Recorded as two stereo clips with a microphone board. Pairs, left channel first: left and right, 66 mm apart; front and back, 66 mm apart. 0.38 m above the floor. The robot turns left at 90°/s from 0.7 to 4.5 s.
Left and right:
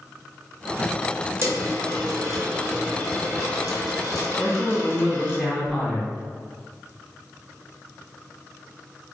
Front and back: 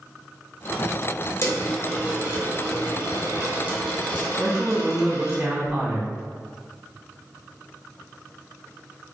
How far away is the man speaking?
About 0.9 m.